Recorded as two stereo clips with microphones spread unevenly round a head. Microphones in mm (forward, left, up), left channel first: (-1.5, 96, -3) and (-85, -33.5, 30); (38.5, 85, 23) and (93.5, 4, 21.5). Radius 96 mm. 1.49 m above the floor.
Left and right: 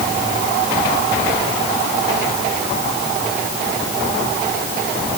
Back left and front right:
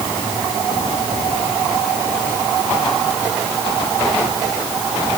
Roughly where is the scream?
No scream in this recording.